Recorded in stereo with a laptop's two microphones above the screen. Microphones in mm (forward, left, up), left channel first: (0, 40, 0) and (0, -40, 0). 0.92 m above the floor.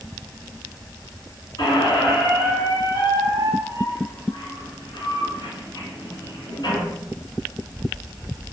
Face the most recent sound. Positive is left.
turn(degrees=65)  # may be behind; listen again after turning